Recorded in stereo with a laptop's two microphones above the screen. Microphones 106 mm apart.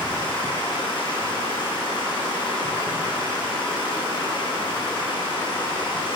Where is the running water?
50° left (ahead or behind), 3.5 m.